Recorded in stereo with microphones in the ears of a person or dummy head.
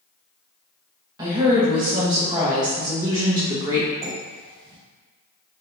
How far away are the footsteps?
I don't hear footsteps.